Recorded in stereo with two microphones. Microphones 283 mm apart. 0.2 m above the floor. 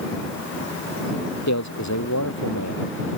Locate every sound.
1.5 s a man speaking: 75° left (ahead or behind)